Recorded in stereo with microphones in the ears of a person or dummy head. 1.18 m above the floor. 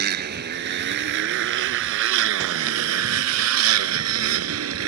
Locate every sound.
0.0 s a motorcycle: 50° right (ahead or behind); by 4.9 s 80° right